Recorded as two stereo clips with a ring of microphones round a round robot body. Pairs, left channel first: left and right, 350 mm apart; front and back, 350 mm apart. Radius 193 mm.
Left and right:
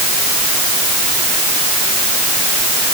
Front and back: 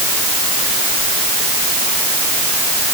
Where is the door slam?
No door slam in this recording.